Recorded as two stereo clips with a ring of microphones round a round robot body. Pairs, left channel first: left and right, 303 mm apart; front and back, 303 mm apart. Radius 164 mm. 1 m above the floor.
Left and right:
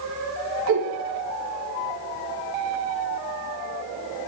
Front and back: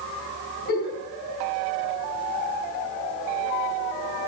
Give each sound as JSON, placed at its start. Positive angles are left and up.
{"t": 0.7, "sound": "a giggle", "azimuth_deg": -60, "distance_m": 2.0}